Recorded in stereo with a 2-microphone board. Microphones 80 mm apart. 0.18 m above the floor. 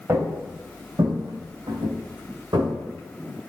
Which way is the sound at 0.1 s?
30° right (ahead or behind).